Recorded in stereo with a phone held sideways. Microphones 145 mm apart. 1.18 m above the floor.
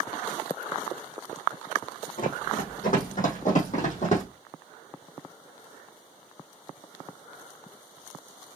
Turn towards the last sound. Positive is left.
turn(degrees=55)  # may be behind; listen again after turning